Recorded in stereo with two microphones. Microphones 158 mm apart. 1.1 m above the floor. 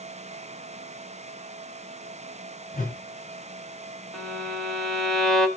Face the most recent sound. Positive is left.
turn(degrees=0)  # may be behind; listen again after turning